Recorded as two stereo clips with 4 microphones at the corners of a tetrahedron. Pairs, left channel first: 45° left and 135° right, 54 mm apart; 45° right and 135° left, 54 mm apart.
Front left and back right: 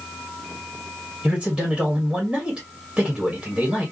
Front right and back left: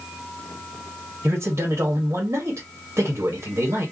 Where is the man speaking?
145° left, 1.8 m.